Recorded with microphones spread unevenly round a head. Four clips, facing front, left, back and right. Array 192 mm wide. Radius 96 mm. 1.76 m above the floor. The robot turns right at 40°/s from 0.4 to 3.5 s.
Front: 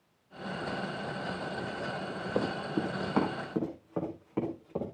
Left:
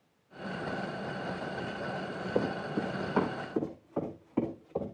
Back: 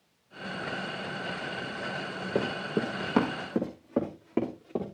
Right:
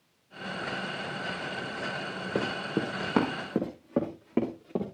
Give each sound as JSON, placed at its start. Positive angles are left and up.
{"t": 2.4, "sound": "running footsteps", "azimuth_deg": -140, "distance_m": 3.5}